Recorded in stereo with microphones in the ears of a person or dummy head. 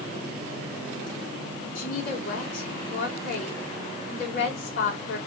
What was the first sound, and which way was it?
A woman speaking, 60° left (ahead or behind).